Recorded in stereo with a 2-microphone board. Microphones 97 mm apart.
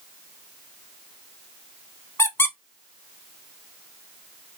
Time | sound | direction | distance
2.2 | a squeak | 30° left (ahead or behind) | 0.5 m